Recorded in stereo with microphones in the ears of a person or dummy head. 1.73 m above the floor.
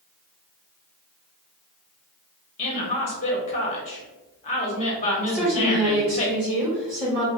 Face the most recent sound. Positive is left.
turn(degrees=-15)  # may be behind; listen again after turning